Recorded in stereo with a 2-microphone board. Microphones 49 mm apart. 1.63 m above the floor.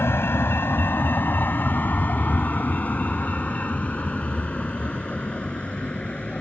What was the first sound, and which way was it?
A vehicle, 60° left (ahead or behind).